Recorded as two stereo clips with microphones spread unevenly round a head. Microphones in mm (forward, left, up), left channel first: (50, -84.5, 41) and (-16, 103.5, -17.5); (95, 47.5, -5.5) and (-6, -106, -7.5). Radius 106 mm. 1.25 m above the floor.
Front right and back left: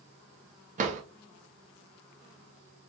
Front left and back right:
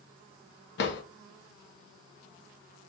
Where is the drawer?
50° left, 0.8 m.